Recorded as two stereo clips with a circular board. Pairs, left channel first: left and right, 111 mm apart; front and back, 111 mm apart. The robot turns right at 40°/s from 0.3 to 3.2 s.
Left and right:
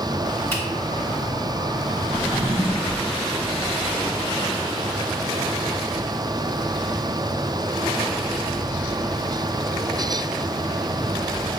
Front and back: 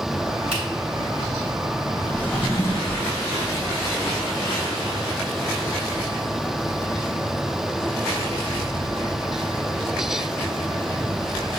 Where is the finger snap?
155° left, 3 m; by 0.6 s 160° left, 3 m.